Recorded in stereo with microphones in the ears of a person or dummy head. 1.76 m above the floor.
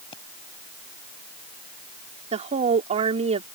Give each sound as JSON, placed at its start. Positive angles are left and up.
{"t": 0.1, "sound": "a pop", "side_deg": 35}
{"t": 2.3, "sound": "a woman speaking", "side_deg": -40}